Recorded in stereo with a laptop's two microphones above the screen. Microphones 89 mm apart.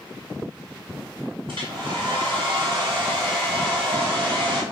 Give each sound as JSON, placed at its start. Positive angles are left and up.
{"t": 1.5, "sound": "a hair dryer", "side_deg": -70, "distance_m": 2.5}